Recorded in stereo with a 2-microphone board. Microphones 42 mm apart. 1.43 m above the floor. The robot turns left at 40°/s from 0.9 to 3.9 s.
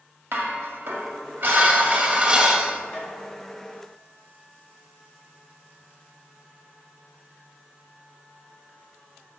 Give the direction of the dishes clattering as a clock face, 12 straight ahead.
3 o'clock.